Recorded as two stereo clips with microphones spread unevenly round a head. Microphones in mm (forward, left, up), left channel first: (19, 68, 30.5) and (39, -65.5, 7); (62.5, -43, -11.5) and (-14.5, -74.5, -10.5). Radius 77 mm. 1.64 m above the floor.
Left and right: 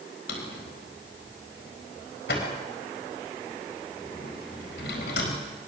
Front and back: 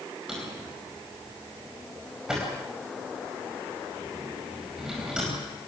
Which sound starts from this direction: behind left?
A drawer, at 0.3 s.